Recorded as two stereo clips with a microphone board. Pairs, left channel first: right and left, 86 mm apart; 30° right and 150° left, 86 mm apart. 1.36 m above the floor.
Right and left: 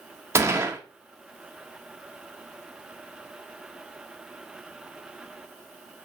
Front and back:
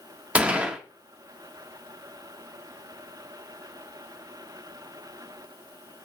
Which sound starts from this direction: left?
A gunshot, at 0.3 s.